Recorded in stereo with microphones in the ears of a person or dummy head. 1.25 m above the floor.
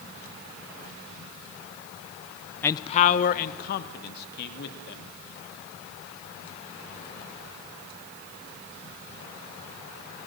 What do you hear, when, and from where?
2.6 s a man speaking: 10° left (ahead or behind), 0.6 m; by 5.1 s 60° left (ahead or behind), 3 m